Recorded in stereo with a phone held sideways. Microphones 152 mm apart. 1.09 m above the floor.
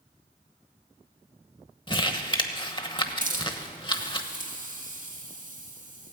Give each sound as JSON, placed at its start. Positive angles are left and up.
{"t": 1.9, "sound": "crumpling", "side_deg": 30, "distance_m": 1.0}
{"t": 3.2, "sound": "a hiss", "side_deg": -60, "distance_m": 1.6}